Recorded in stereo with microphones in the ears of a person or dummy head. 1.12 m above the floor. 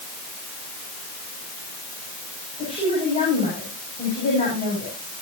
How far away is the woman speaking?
About 8.5 m.